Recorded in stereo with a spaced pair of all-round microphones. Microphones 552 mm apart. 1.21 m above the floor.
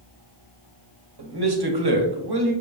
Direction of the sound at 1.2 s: 45° right (ahead or behind).